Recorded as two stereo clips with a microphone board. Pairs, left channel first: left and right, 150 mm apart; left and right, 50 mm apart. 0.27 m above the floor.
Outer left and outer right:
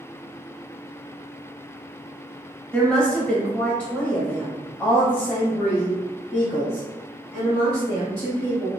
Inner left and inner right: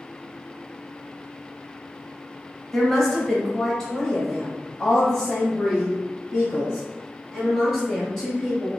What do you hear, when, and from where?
2.7 s a woman speaking: 5° left (ahead or behind), 1.1 m